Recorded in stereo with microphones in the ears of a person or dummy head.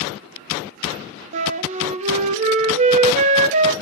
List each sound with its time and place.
1.3 s a flute: 40° right (ahead or behind), 0.5 m